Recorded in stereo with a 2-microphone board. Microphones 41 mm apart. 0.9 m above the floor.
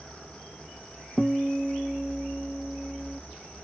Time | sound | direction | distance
1.2 | a guitar | 5° left (ahead or behind) | 0.8 m